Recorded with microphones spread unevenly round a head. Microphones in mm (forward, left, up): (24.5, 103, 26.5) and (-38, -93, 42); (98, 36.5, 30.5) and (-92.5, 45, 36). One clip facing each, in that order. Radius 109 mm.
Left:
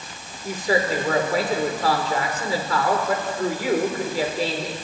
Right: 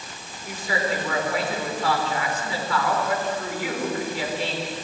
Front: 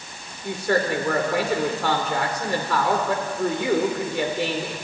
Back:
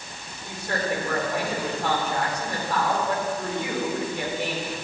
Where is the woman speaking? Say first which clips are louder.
Left 5 dB, front 6 dB; 15° left, 5 m.